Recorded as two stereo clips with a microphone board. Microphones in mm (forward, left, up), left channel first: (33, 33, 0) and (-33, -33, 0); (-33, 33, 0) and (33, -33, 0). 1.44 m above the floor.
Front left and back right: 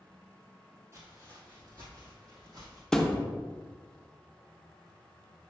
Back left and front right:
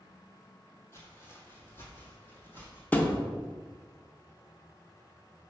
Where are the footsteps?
Straight behind, 2 m; by 2.8 s 160° right, 3 m.